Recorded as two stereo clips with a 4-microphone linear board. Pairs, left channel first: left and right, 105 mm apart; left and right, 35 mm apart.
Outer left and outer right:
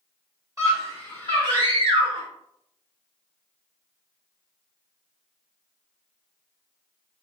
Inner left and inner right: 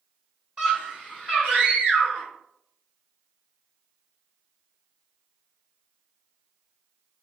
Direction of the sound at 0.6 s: 35° right (ahead or behind).